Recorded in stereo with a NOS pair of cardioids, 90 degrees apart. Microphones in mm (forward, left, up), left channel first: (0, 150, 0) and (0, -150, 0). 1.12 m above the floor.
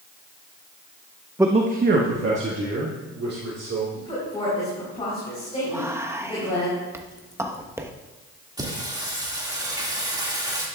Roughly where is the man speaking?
Ahead.